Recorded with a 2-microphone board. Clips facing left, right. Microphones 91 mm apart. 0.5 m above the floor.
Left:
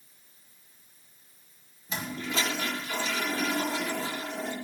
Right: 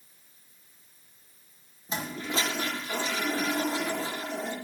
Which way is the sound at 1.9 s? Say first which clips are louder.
Right 1 dB; 30° right (ahead or behind).